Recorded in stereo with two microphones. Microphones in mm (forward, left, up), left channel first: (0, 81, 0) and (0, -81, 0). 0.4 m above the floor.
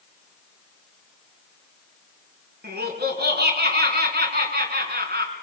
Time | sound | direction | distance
2.6 | laughter | 75° right (ahead or behind) | 4.5 m